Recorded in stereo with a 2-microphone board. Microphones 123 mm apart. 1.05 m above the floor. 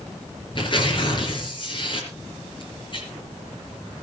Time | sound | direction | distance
0.6 | tearing paper | 40° left (ahead or behind) | 4.5 m